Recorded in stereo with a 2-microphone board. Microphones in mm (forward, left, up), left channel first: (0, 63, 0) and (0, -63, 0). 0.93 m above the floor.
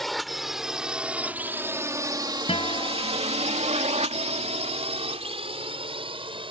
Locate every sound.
0.0 s a drone: centre (ahead or behind); by 6.5 s 45° right (ahead or behind)
2.5 s a guitar: 50° left (ahead or behind)